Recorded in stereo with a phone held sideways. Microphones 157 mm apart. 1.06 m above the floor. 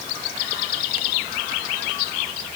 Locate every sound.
Only background noise.